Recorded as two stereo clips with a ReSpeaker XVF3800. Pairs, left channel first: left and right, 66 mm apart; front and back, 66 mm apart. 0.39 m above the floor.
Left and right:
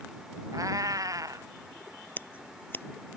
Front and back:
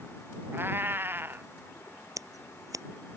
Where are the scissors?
150° left.